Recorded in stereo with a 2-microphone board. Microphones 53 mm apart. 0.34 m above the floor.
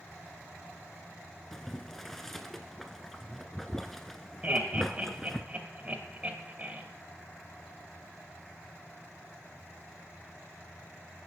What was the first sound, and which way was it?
Boiling, 10° left (ahead or behind).